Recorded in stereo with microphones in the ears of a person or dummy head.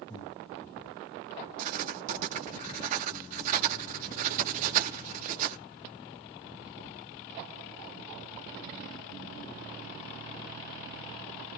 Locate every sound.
0.1 s breathing: 25° left (ahead or behind), 3 m
1.6 s writing: 50° right (ahead or behind), 1.1 m